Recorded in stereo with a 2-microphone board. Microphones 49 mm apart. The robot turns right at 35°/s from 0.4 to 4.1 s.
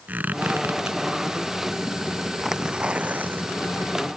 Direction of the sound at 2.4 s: 175° right.